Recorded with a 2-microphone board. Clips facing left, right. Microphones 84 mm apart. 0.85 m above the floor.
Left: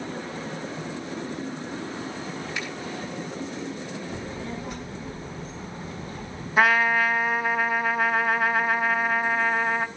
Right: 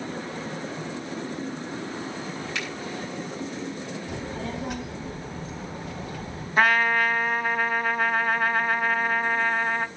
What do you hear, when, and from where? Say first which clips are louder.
2.5 s a finger snap: right 1 dB; 80° right, 7 m
4.1 s a child speaking: right 1 dB; 75° right (ahead or behind), 4 m
6.6 s a trumpet: left 1 dB; centre (ahead or behind), 1.6 m